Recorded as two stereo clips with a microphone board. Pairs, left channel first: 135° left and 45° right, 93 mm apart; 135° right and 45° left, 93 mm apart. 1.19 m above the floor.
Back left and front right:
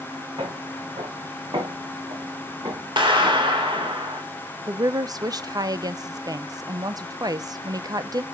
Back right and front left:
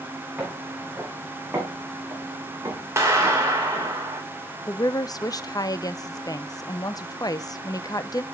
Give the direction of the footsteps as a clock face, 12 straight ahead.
1 o'clock.